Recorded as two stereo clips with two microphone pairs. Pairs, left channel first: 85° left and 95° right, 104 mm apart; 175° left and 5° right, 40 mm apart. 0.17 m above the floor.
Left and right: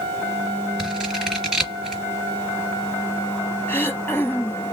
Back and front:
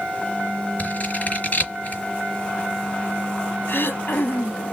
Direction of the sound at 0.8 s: Straight behind.